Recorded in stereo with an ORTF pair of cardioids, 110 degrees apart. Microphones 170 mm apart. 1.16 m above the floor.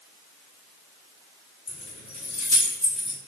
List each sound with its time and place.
1.7 s keys jangling: 40° left, 1.5 m; by 3.2 s straight ahead, 1.3 m